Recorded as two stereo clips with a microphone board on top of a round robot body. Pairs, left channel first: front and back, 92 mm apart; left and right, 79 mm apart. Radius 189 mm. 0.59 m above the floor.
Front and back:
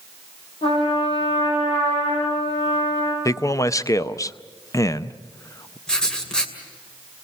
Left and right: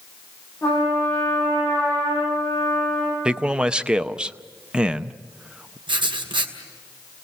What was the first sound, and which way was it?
A trumpet, 20° left.